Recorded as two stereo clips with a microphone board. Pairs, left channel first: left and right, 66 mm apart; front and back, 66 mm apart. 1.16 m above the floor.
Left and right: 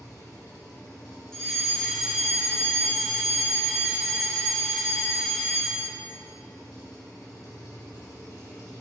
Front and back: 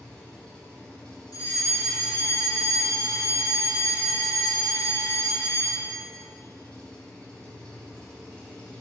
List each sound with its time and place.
0.0 s an engine running: 75° left, 3 m
1.3 s a fire alarm: 5° left, 3.5 m